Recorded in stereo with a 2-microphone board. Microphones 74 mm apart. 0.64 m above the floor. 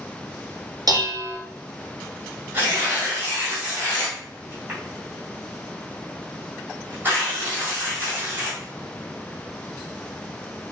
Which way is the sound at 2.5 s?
30° right (ahead or behind).